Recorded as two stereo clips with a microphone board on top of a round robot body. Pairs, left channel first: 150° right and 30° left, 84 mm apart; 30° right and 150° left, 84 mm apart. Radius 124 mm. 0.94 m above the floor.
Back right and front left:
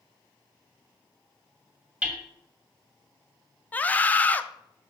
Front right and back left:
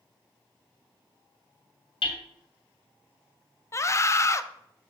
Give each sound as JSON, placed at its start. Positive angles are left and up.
{"t": 2.0, "sound": "hammering", "azimuth_deg": -45, "distance_m": 2.5}
{"t": 3.7, "sound": "a scream", "azimuth_deg": -80, "distance_m": 0.9}